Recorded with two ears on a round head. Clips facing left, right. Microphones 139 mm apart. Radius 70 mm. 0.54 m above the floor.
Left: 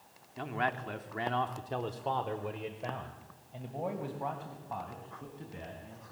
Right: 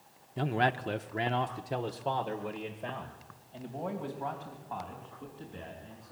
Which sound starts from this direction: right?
A man speaking, at 0.4 s.